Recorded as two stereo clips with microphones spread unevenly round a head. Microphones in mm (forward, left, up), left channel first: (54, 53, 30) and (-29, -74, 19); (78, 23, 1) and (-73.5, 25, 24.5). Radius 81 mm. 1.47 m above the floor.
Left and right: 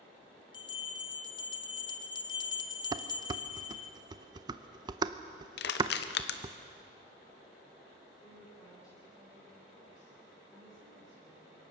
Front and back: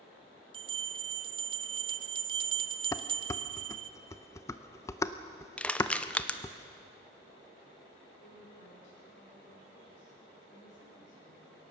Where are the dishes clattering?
75° right, 0.6 m.